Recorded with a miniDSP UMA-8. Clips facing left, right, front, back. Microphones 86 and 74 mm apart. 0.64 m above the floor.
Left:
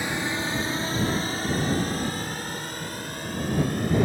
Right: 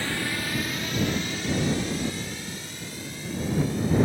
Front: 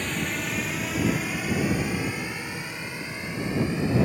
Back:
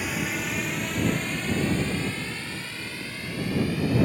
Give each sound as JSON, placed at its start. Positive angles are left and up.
{"t": 0.0, "sound": "a drone", "azimuth_deg": 115}